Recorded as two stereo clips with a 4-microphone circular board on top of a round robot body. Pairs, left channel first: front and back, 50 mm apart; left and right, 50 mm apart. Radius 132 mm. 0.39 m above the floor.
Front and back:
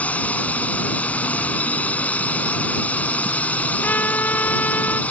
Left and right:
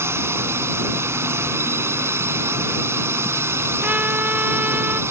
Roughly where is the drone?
Ahead right.